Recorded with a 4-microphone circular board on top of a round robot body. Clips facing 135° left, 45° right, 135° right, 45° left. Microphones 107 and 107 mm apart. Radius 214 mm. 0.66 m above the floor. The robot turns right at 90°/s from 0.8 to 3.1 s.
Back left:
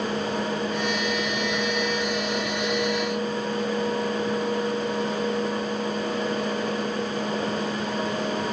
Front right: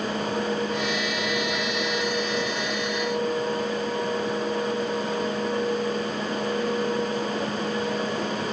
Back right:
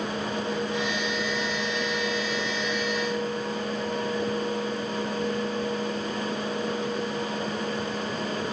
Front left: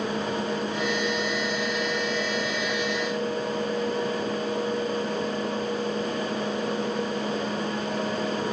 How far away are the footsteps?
No footsteps in this recording.